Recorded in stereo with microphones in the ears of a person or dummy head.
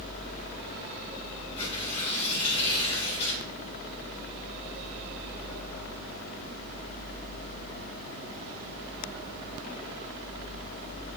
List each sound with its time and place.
1.6 s tearing paper: 40° left (ahead or behind), 5 m